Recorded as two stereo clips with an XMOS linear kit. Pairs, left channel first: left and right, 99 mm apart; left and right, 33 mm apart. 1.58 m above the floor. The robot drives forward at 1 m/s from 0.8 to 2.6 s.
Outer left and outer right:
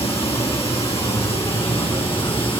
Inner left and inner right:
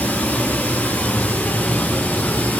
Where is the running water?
70° left (ahead or behind), 4 m; by 2.6 s 60° left (ahead or behind), 4 m.